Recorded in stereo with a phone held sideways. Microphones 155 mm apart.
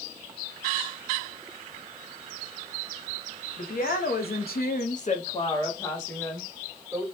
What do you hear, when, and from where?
3.6 s a woman speaking: 65° left (ahead or behind), 1.0 m; by 7.0 s centre (ahead or behind), 1.4 m